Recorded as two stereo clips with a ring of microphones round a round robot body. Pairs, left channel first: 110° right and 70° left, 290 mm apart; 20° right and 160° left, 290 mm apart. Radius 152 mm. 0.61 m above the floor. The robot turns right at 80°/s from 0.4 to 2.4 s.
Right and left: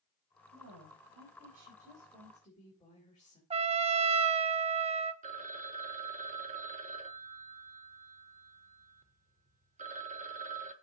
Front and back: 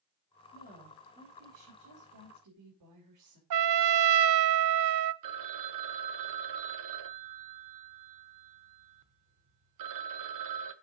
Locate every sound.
0.5 s a woman speaking: 20° left, 3.5 m; by 3.4 s 175° left, 3.5 m
3.5 s a trumpet: 135° left, 0.6 m
5.2 s a phone ringing: 135° left, 1.3 m